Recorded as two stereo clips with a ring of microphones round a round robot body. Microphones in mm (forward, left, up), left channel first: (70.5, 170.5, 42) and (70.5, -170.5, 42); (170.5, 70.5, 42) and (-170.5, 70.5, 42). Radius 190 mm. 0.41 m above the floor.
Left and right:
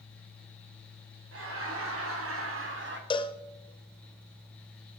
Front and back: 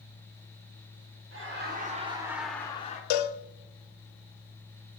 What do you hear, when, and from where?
1.3 s laughter: 135° right, 1.9 m; by 3.0 s 55° right, 1.4 m
3.1 s a cowbell: 15° left, 0.6 m